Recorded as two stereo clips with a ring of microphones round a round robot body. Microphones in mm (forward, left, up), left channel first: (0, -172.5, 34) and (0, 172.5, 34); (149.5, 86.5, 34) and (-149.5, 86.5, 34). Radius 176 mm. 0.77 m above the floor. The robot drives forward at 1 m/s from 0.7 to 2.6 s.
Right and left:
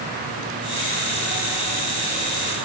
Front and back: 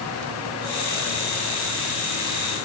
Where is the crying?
No crying in this recording.